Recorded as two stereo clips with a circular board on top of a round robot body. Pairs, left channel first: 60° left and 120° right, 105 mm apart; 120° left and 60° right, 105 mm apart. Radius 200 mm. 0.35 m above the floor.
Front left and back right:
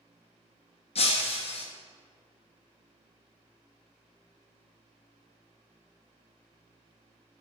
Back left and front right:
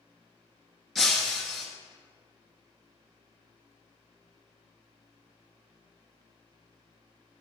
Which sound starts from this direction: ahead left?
Breaking glass, at 0.9 s.